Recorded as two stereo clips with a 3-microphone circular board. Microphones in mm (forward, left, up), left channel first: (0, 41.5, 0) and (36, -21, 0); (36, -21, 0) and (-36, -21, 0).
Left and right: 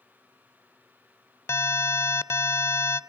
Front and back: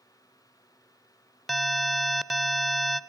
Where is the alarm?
85° left, 0.7 m.